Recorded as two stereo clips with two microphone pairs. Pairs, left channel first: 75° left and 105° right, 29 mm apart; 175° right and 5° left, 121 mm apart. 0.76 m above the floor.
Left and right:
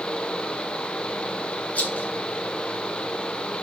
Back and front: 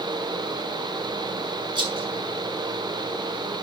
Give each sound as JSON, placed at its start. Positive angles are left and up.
{"t": 1.8, "sound": "a rattle", "azimuth_deg": 55, "distance_m": 4.0}